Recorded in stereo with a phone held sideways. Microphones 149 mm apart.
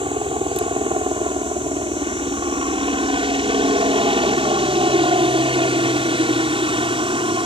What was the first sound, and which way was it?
A helicopter, 35° right (ahead or behind).